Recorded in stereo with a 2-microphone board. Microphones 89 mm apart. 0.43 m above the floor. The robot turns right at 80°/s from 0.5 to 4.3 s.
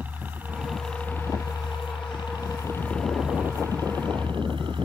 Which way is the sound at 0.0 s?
20° right (ahead or behind).